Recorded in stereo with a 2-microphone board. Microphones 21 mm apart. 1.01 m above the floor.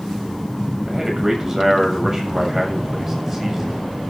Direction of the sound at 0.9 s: 15° right (ahead or behind).